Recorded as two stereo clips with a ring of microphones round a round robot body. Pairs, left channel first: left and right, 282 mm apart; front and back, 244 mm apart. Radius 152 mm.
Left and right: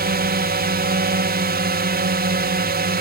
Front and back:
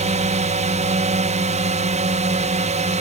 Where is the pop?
I don't hear a pop.